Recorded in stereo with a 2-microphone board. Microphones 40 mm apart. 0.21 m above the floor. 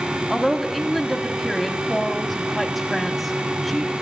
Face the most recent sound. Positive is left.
turn(degrees=0)  # may be behind; listen again after turning